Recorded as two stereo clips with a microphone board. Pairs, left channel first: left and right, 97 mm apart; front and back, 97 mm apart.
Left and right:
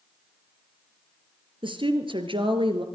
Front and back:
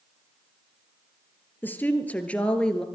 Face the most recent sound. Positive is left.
turn(degrees=-85)